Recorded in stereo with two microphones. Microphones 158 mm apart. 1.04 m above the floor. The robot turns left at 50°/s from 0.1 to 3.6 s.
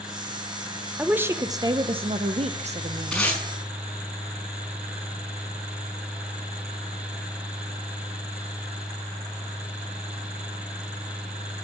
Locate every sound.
1.0 s a woman speaking: 10° right, 0.6 m; by 3.3 s 125° right, 0.6 m
3.1 s tape being pulled: centre (ahead or behind), 5.5 m; by 3.4 s 15° left (ahead or behind), 5.5 m